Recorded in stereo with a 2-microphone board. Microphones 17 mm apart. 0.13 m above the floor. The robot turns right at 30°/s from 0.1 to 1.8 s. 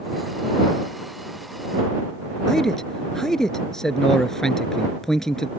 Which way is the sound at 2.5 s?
30° left (ahead or behind).